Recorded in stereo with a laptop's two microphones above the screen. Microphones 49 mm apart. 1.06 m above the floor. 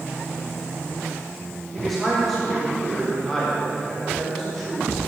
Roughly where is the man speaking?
Centre.